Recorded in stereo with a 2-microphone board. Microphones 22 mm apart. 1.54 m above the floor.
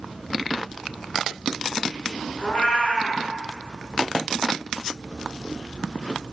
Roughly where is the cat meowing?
Left.